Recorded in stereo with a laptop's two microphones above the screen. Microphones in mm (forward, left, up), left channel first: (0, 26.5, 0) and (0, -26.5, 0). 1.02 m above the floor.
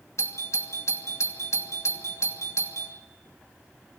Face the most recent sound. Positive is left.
turn(degrees=65)  # may be behind; listen again after turning